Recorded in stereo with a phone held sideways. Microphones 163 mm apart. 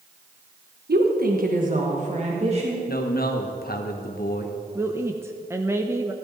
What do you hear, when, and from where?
0.9 s a woman speaking: 70° right (ahead or behind), 1.2 m; by 2.8 s 35° right (ahead or behind), 2 m
2.9 s a man speaking: 65° left (ahead or behind), 1.1 m
4.8 s a woman speaking: 15° right (ahead or behind), 0.6 m